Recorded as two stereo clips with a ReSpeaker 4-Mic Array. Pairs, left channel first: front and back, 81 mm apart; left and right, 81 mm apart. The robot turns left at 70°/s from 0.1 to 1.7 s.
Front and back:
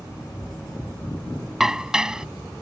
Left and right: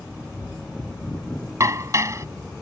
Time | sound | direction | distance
1.6 | dishes clattering | 95° right | ?